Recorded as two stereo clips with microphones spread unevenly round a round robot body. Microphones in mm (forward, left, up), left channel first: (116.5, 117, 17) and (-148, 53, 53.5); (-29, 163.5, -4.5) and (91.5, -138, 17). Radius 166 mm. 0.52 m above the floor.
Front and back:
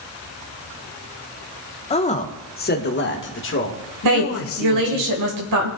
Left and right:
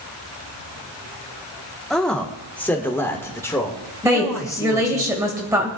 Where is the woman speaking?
150° right, 1.9 m.